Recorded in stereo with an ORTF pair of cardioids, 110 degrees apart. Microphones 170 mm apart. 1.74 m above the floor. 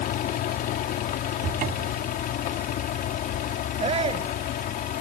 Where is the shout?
40° right.